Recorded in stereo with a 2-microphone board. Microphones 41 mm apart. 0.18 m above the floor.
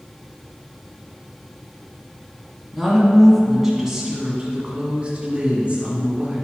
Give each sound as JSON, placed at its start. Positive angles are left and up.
{"t": 2.7, "sound": "a woman speaking", "side_deg": 0, "distance_m": 1.9}